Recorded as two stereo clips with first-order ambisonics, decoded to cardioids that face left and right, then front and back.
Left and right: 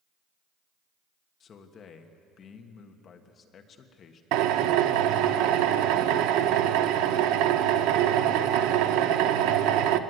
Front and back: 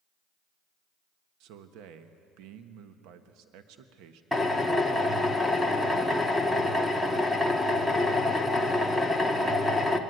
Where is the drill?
85° right, 1.1 m.